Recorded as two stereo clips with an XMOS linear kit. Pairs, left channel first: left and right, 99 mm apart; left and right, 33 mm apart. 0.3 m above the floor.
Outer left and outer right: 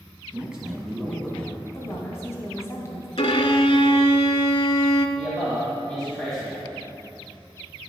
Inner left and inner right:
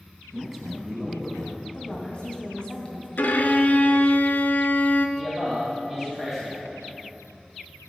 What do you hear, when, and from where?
0.3 s a man speaking: 10° right (ahead or behind), 2 m; by 1.6 s 20° left (ahead or behind), 1.8 m
1.7 s a woman speaking: 30° left (ahead or behind), 2.0 m
3.2 s a violin: 70° left (ahead or behind), 0.6 m
5.2 s a man speaking: 5° left (ahead or behind), 1.9 m